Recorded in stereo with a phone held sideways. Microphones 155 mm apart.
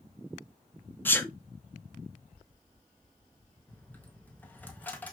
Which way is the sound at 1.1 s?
15° left (ahead or behind).